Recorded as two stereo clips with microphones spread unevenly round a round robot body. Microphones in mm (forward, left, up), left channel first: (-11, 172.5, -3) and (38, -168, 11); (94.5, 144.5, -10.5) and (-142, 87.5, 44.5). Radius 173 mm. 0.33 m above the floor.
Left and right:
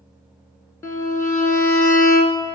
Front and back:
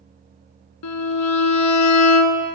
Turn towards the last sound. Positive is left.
turn(degrees=15)